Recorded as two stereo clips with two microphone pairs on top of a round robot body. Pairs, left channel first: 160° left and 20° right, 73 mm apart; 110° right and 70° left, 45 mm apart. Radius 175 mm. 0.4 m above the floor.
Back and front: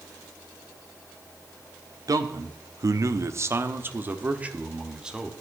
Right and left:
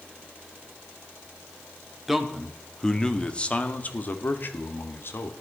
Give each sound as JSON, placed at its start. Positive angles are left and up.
{"t": 2.1, "sound": "a man speaking", "azimuth_deg": -15, "distance_m": 1.4}